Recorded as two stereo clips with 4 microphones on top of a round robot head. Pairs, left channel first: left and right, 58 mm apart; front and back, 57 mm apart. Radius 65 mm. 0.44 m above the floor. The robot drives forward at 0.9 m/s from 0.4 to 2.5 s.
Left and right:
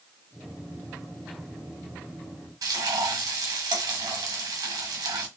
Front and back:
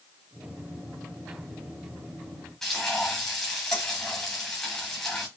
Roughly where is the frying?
Right.